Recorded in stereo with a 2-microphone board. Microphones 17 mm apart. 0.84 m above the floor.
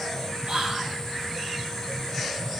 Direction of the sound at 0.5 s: 60° right (ahead or behind).